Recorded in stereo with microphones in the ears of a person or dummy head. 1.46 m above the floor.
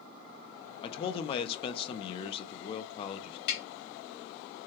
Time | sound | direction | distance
0.8 | a man speaking | 35° left (ahead or behind) | 0.6 m
3.5 | tapping | 60° left (ahead or behind) | 2 m